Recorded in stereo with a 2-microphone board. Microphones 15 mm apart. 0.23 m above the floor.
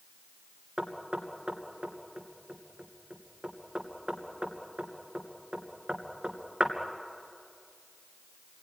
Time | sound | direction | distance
0.8 | knocking | 65° right (ahead or behind) | 2.5 m